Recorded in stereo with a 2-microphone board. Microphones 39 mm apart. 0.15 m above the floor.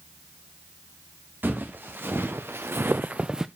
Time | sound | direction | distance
1.4 | footsteps | 60° right (ahead or behind) | 1.8 m